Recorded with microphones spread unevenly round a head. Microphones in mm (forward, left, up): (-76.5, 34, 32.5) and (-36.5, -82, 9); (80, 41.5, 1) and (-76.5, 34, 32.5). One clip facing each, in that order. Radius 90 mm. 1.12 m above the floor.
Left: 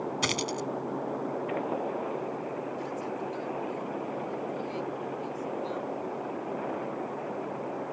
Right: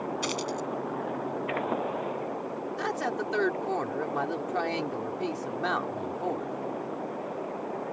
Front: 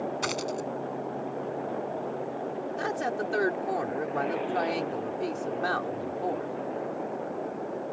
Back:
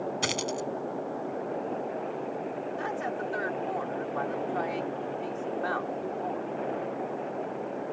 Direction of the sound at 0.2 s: 125° left.